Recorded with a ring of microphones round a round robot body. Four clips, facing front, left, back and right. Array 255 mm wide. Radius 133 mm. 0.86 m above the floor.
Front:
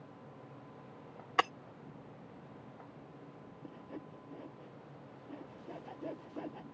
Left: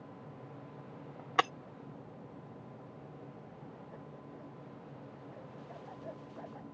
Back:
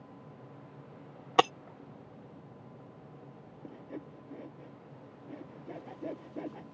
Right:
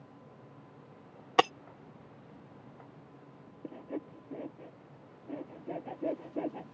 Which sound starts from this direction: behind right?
Breaking glass, at 1.4 s.